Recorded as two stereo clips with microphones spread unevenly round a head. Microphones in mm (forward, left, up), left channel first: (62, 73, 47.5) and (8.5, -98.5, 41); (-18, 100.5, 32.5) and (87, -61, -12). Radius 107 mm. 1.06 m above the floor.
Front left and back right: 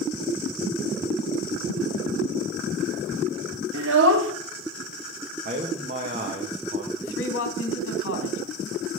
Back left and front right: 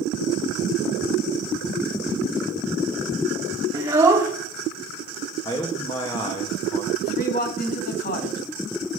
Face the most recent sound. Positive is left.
turn(degrees=80)